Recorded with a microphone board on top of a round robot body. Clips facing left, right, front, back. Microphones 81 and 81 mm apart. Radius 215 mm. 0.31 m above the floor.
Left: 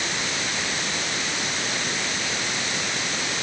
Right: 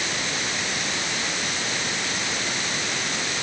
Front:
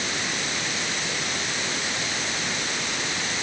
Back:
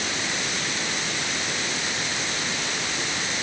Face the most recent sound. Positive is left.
No sound to turn to.